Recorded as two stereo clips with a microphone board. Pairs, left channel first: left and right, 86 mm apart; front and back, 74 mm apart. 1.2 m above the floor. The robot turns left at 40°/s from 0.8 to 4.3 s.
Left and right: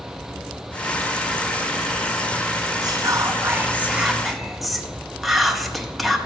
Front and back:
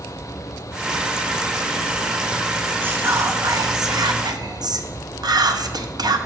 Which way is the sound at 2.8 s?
120° right.